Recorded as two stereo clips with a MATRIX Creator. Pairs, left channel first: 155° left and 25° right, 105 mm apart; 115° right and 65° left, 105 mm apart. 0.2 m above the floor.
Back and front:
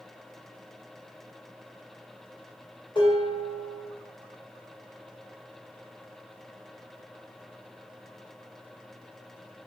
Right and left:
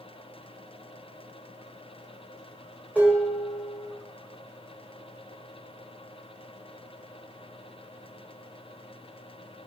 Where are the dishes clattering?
140° left, 1.4 m.